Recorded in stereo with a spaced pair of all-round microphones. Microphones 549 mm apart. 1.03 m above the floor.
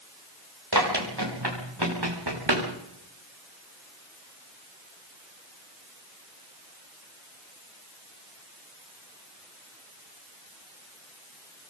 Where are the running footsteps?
45° right (ahead or behind), 8.5 m; by 2.7 s 50° right (ahead or behind), 6 m.